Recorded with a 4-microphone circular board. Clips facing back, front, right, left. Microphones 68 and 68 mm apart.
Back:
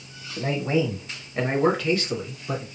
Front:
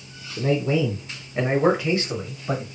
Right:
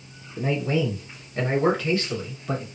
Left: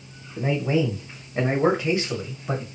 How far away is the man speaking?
About 1.2 m.